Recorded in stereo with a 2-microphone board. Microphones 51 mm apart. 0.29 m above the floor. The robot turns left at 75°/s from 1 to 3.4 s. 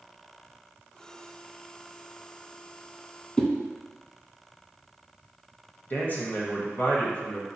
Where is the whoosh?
20° left (ahead or behind), 0.7 m.